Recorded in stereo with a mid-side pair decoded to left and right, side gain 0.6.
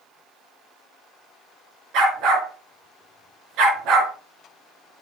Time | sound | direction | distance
1.9 | a dog barking | 70° right | 4.5 m